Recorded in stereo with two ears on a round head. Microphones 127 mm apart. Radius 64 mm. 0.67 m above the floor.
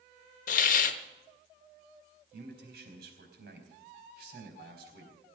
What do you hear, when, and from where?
0.5 s a hiss: 60° left (ahead or behind), 1.1 m
2.3 s a man speaking: 80° right, 4.5 m